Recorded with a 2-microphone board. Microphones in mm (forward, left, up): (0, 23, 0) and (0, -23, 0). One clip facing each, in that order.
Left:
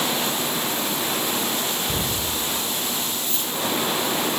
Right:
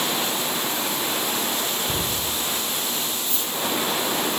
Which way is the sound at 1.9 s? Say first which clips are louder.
Even; 35° right (ahead or behind).